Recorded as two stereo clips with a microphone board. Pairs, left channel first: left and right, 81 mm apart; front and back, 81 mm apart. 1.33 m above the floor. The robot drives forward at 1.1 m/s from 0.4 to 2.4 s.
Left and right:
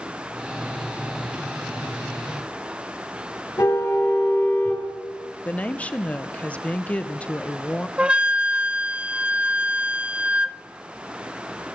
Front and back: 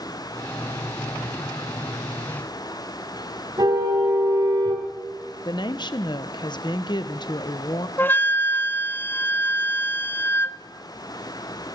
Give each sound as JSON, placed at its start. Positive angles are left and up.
{"t": 3.6, "sound": "a car horn", "azimuth_deg": 145, "distance_m": 5.0}
{"t": 5.5, "sound": "a woman speaking", "azimuth_deg": 15, "distance_m": 1.0}
{"t": 8.0, "sound": "a flute", "azimuth_deg": -25, "distance_m": 0.6}